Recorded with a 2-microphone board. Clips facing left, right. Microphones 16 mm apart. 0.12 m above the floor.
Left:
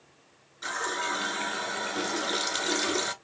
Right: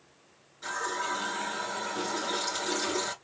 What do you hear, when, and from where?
0.6 s a running tap: 25° left (ahead or behind), 1.3 m